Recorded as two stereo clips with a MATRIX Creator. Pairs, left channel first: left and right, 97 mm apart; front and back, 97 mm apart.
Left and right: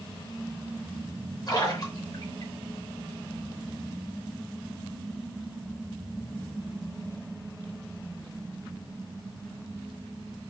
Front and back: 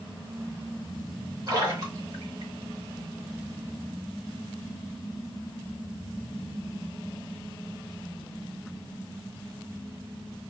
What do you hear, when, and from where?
1.5 s a splash: 130° left, 2.5 m